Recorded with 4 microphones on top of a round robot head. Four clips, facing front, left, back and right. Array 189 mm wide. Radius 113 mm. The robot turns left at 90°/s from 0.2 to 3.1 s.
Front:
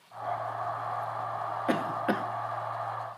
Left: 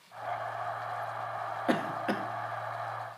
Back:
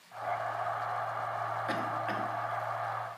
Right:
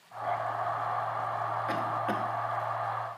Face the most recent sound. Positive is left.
turn(degrees=-80)